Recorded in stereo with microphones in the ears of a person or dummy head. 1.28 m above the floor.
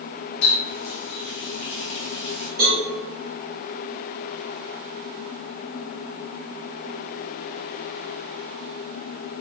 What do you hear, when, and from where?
0.4 s a running tap: 65° left (ahead or behind), 0.8 m
2.6 s a cowbell: 40° right (ahead or behind), 1.4 m